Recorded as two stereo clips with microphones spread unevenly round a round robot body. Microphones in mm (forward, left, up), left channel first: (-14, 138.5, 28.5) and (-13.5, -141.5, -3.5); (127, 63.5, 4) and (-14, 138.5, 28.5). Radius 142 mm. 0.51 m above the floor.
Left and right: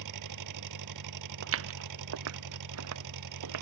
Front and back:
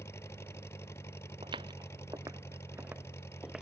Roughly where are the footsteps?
Behind right.